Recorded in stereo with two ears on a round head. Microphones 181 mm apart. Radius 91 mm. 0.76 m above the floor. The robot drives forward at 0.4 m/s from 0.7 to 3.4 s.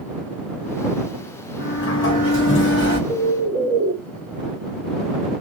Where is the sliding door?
65° left (ahead or behind), 1.5 m; by 3.0 s 55° left (ahead or behind), 1.7 m.